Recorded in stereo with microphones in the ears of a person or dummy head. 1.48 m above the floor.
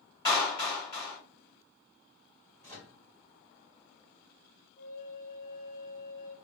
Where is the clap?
25° left (ahead or behind), 2.0 m.